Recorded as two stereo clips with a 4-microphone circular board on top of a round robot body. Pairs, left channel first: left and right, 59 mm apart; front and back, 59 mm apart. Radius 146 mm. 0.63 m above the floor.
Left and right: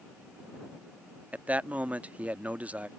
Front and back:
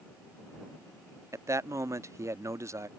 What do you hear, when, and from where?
1.3 s a man speaking: 155° right